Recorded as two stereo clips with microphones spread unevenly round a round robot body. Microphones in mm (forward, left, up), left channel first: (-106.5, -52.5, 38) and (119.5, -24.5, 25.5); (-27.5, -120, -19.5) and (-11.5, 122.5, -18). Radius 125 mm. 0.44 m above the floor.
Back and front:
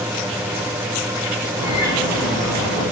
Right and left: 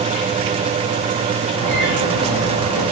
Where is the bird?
70° right, 4.5 m.